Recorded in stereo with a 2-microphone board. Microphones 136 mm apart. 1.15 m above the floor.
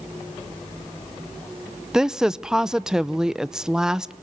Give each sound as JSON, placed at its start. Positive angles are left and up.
{"t": 1.9, "sound": "a woman speaking", "side_deg": -5, "distance_m": 0.6}